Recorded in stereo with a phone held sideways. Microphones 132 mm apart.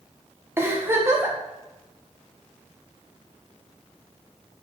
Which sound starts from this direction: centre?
A giggle, at 0.6 s.